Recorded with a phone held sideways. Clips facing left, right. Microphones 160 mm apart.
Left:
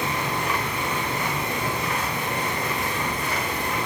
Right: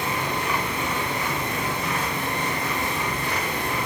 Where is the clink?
No clink in this recording.